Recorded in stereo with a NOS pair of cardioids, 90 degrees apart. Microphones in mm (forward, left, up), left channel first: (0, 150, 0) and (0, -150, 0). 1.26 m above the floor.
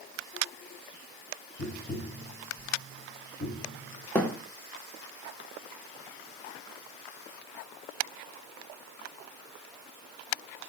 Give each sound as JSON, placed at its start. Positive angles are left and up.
{"t": 1.6, "sound": "tapping", "azimuth_deg": 20, "distance_m": 2.0}
{"t": 4.2, "sound": "a thud", "azimuth_deg": 5, "distance_m": 1.7}